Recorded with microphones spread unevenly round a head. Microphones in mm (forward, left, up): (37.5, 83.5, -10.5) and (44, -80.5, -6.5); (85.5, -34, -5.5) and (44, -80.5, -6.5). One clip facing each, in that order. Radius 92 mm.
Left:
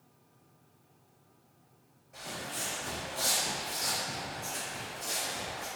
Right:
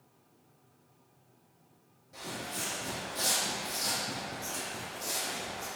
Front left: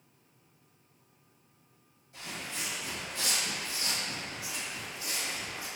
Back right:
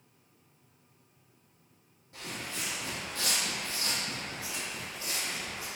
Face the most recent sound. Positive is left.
turn(degrees=-70)